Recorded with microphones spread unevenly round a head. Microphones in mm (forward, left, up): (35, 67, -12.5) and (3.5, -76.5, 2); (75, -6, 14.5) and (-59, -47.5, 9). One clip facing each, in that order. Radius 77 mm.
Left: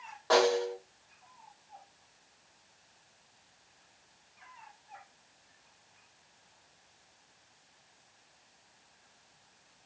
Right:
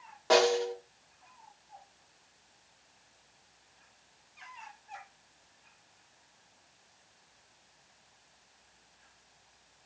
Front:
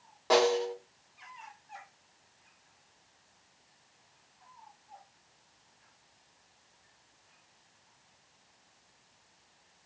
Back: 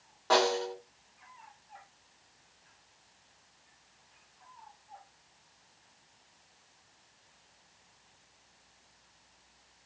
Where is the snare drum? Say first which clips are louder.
Right 1 dB, front 2 dB; 50° right, 1.8 m.